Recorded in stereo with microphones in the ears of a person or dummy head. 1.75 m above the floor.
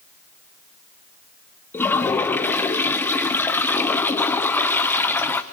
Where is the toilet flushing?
10° left (ahead or behind), 0.7 m.